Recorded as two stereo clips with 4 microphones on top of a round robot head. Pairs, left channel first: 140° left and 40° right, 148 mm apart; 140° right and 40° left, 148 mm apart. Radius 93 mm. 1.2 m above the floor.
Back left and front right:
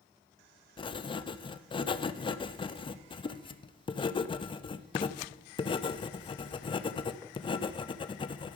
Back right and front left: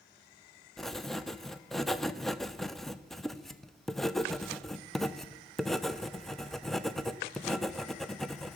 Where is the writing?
135° left, 0.5 m.